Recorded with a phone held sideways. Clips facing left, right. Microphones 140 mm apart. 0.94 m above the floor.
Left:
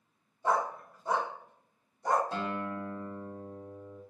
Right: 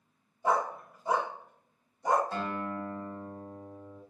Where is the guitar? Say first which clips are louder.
Even; 20° left (ahead or behind), 1.2 m.